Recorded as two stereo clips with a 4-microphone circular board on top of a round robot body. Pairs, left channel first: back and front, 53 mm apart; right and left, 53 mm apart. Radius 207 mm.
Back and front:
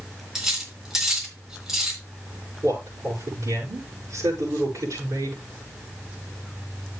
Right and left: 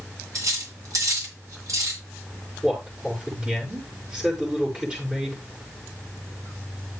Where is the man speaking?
20° left, 6 m.